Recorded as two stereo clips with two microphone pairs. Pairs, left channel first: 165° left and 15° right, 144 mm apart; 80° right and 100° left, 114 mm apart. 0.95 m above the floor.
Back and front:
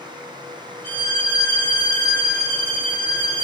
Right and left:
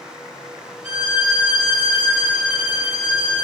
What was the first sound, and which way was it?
A violin, 170° left.